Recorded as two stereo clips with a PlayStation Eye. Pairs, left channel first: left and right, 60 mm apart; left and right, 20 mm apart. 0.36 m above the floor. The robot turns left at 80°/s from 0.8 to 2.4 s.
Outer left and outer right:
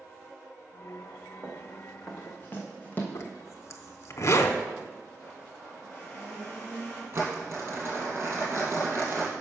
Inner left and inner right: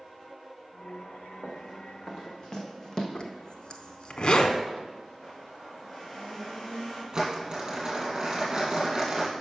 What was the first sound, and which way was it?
Running footsteps, 40° right (ahead or behind).